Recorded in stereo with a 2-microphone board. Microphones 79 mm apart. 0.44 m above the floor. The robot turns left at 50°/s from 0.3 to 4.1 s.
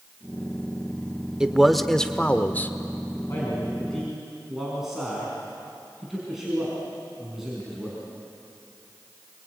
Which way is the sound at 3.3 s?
35° left.